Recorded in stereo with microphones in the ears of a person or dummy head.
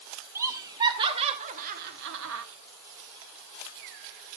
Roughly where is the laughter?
Centre.